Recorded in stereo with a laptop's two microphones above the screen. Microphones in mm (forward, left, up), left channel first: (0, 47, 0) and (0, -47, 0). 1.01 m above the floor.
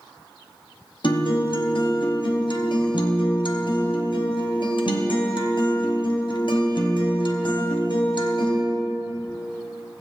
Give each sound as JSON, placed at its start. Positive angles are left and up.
{"t": 1.0, "sound": "a guitar", "side_deg": 55, "distance_m": 0.8}